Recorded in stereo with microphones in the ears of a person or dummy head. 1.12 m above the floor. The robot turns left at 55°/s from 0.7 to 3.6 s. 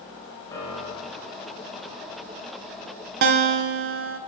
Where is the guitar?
45° right (ahead or behind), 0.6 m; by 4.2 s 55° right (ahead or behind), 0.6 m.